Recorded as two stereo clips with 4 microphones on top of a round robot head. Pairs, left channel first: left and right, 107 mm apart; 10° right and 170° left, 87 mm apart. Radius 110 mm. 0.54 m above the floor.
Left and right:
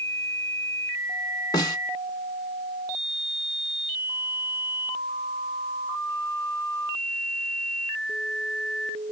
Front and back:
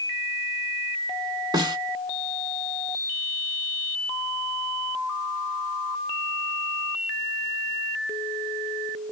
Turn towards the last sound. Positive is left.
turn(degrees=140)